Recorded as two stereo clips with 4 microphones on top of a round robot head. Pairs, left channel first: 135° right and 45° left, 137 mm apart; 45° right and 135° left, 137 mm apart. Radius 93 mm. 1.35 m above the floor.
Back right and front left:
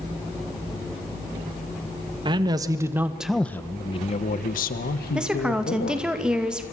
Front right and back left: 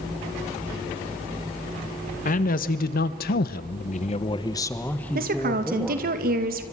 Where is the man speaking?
15° right, 1.8 m; by 6.1 s 140° right, 2.5 m.